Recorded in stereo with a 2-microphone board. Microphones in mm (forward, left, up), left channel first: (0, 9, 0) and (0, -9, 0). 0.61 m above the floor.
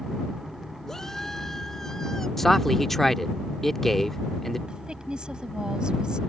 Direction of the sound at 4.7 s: 60° right (ahead or behind).